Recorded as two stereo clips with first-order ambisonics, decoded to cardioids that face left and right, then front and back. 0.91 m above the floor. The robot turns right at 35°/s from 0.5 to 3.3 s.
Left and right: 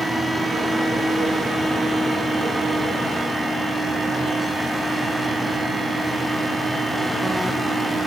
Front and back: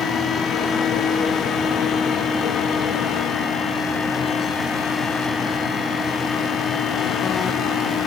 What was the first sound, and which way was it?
Only background noise.